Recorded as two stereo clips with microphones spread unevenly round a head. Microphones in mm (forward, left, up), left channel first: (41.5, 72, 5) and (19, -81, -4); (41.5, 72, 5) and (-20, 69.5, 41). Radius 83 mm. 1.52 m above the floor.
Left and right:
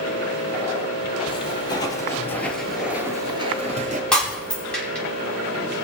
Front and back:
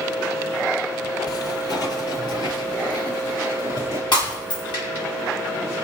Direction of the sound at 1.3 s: 35° left.